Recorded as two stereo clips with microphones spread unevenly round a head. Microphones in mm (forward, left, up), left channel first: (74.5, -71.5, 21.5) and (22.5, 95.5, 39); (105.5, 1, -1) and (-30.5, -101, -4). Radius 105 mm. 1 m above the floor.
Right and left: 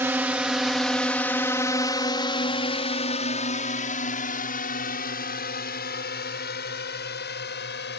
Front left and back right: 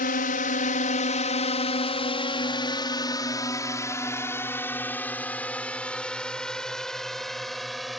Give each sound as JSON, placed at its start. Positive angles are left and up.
{"t": 0.0, "sound": "a drone", "azimuth_deg": 30}